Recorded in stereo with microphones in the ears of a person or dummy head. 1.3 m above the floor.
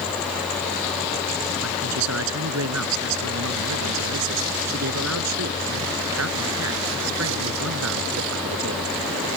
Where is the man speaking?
85° right; by 8.9 s 75° right (ahead or behind).